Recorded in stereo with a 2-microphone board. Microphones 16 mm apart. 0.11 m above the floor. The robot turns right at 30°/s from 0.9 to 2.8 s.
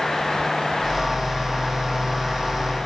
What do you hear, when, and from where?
Only background noise.